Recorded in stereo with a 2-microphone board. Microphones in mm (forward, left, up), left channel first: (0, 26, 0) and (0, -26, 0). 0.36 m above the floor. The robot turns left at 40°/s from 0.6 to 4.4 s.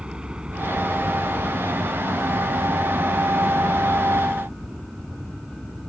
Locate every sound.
0.0 s a helicopter: 20° right; by 5.9 s 175° right